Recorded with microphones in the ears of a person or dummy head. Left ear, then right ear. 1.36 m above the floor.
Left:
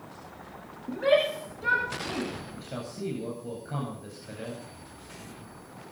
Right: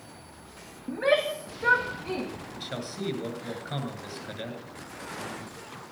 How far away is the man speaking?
About 9 m.